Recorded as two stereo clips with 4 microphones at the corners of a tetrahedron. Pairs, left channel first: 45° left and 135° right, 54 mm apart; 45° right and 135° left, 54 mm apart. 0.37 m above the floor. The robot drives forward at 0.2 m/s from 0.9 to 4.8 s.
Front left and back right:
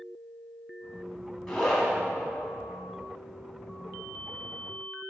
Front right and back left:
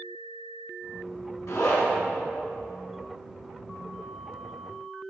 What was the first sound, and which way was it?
A zipper, 35° right.